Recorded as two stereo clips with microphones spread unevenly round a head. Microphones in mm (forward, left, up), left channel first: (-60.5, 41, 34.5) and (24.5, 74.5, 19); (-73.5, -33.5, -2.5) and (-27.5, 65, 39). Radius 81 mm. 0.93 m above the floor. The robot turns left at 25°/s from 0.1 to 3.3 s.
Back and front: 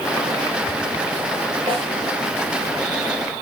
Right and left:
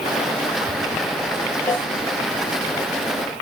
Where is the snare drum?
30° right, 5 m; by 1.9 s 35° right, 5 m.